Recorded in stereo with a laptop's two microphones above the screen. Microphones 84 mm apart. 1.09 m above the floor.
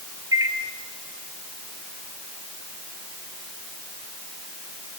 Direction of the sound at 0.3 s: 40° right (ahead or behind).